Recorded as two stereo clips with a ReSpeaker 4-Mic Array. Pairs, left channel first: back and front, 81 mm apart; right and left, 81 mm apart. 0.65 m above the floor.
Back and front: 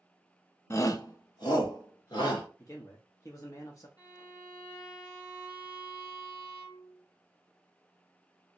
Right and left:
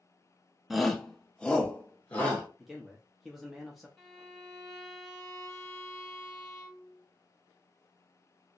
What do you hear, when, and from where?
0.7 s a shout: 175° left, 0.6 m; by 2.5 s 160° right, 1.6 m
2.6 s a man speaking: straight behind, 0.7 m
4.0 s a violin: 170° right, 2 m